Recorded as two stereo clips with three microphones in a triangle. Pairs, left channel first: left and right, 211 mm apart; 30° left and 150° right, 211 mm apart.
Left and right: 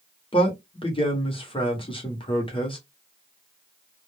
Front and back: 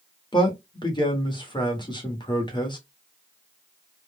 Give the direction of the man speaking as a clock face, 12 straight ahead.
10 o'clock.